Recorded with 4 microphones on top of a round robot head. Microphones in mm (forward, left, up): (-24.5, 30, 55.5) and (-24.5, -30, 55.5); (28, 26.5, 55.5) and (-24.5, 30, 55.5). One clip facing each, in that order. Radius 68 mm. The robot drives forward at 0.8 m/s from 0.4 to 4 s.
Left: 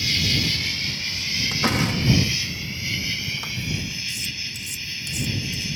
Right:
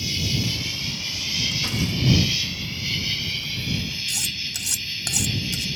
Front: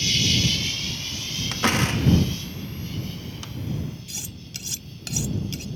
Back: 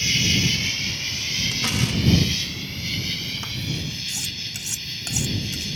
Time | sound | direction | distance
0.0 | an insect | 125° left | ?
1.5 | a door slam | 45° left | ?
4.1 | cutlery clinking | 110° right | ?